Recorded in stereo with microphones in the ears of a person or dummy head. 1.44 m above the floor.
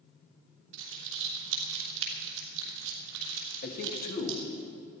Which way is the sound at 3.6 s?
60° left (ahead or behind).